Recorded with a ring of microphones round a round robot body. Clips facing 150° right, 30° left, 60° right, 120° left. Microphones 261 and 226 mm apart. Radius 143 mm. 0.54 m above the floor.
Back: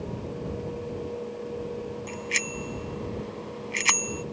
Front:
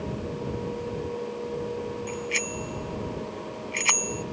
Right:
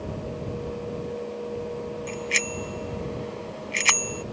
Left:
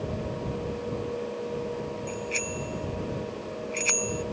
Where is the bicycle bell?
90° right.